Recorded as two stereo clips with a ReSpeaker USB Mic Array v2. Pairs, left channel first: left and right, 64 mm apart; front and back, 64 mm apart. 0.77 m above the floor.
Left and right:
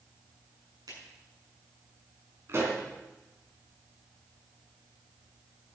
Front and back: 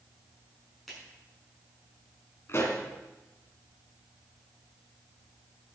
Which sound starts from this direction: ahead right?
A pop, at 2.5 s.